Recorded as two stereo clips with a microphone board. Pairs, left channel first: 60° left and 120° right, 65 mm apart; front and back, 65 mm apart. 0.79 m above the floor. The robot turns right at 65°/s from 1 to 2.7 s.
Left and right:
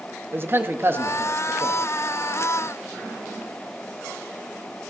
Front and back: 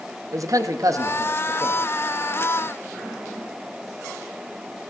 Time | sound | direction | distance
0.3 | a man speaking | 170° right | 0.7 m